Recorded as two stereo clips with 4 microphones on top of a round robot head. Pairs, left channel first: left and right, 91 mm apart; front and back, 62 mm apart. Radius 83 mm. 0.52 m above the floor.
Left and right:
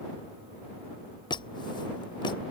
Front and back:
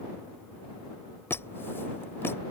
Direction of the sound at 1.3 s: 55° left.